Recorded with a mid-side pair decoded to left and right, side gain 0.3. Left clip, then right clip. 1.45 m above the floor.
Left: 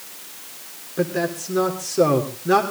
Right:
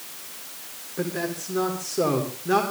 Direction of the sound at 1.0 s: 45° left.